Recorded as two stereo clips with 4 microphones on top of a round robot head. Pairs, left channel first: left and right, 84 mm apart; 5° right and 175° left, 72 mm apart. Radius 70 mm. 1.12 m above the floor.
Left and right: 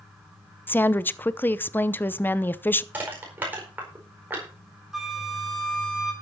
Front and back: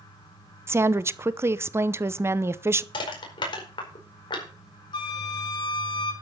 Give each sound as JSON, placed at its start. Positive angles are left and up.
{"t": 0.7, "sound": "a woman speaking", "azimuth_deg": 145, "distance_m": 0.8}
{"t": 2.9, "sound": "crushing", "azimuth_deg": -15, "distance_m": 4.5}
{"t": 4.9, "sound": "a flute", "azimuth_deg": 0, "distance_m": 3.5}